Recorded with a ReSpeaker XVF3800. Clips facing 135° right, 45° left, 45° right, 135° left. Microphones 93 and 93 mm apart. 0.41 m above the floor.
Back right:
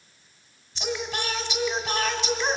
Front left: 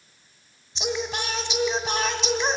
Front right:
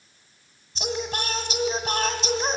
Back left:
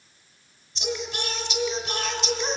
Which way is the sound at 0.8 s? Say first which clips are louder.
Front left 2 dB, front right 2 dB; 15° right.